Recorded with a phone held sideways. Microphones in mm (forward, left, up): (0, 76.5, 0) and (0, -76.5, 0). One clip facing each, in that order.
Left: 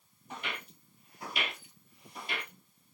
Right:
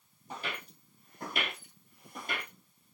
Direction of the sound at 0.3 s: 30° right (ahead or behind).